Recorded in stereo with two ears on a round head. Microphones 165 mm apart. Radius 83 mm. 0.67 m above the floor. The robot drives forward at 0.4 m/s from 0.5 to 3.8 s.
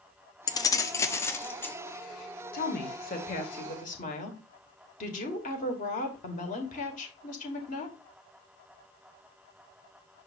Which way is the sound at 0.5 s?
20° left (ahead or behind).